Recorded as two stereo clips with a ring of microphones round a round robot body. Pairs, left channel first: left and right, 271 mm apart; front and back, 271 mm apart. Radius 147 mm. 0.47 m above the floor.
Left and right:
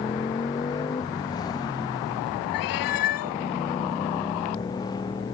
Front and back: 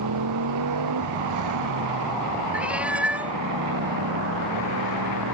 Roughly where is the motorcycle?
Behind.